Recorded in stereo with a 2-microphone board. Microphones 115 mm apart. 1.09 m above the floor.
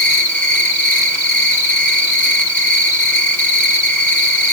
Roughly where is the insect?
Centre.